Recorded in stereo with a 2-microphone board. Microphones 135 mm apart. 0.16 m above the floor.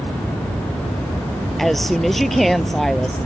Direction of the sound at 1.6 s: Centre (ahead or behind).